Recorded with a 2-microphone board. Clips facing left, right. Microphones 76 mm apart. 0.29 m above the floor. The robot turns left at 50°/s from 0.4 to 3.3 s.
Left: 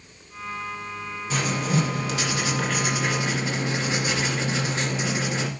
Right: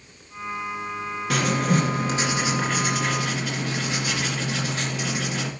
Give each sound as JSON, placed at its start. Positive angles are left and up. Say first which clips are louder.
{"t": 1.3, "sound": "writing", "louder": "right 3 dB", "azimuth_deg": -105, "distance_m": 2.0}